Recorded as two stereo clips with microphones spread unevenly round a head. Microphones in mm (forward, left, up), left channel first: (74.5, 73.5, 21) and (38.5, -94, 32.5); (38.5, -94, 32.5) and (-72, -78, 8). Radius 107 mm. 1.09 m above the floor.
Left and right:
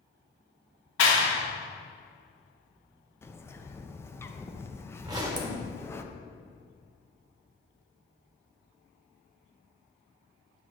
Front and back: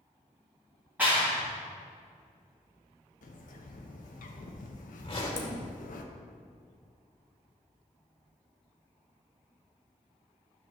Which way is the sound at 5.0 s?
35° right.